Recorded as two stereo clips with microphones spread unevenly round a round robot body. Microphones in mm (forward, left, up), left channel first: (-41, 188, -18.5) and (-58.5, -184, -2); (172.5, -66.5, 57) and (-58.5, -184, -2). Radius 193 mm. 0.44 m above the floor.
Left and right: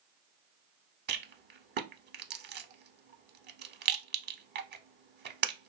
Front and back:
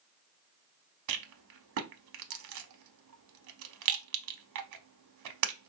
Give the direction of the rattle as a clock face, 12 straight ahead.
5 o'clock.